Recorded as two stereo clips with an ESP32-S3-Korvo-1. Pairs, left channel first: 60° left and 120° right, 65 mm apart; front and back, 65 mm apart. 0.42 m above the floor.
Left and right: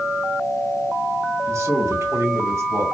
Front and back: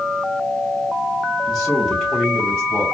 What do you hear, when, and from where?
1.5 s a man speaking: 95° right, 3 m; by 2.8 s 85° right, 3.5 m